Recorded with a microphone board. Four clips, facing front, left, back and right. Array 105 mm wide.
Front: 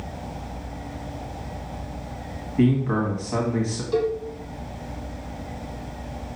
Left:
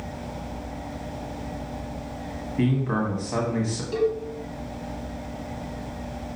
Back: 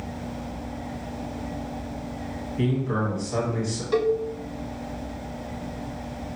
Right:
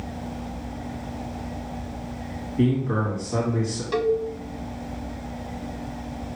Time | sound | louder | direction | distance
2.6 | a man speaking | right 1 dB, front 5 dB | 35° left | 1.5 m
3.9 | a cowbell | right 2 dB, back 1 dB | 120° right | 0.8 m